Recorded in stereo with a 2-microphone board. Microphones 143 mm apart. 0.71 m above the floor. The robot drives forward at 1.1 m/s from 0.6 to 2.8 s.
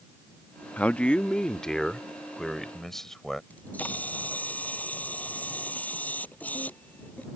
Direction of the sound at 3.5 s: 10° left (ahead or behind).